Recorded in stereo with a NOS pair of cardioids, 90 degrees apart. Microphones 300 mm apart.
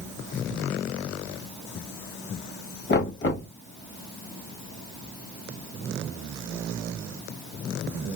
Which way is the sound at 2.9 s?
35° left.